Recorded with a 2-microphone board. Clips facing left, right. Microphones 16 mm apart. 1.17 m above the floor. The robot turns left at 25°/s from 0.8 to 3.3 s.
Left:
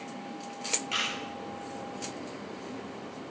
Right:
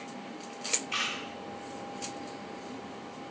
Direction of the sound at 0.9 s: 50° left (ahead or behind).